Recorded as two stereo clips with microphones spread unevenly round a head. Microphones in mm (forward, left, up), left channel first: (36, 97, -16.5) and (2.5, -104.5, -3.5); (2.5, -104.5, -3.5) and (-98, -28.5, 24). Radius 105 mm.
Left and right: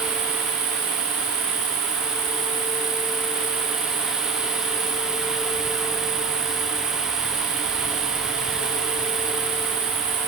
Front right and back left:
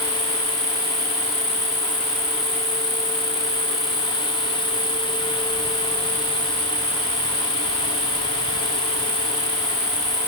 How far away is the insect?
About 2 m.